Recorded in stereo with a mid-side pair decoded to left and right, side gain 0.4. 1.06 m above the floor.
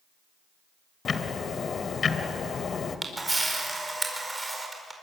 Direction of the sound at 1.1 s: 45° left.